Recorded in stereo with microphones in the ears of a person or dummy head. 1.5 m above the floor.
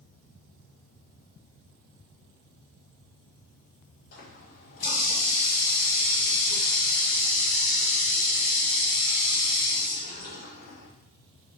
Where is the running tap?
60° left (ahead or behind), 4 m.